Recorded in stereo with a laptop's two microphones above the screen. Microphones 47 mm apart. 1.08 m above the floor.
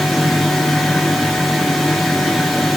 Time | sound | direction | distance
0.0 | a fan | centre (ahead or behind) | 1.4 m